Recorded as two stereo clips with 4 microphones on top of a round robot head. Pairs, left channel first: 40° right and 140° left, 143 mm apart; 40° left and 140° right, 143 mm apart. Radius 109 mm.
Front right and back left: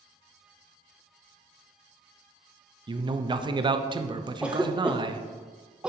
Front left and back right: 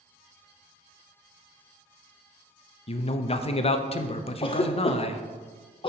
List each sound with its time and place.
2.9 s a man speaking: 85° left, 0.7 m
4.4 s a cough: 60° left, 0.7 m